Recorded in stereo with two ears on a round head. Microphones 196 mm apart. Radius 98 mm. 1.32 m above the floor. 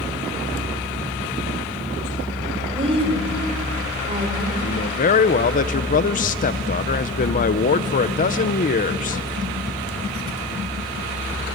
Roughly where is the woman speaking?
Right.